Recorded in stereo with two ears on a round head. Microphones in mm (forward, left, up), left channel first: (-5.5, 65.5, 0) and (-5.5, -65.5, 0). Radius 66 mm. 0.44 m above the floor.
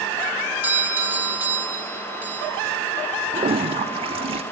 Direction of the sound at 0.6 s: 15° right (ahead or behind).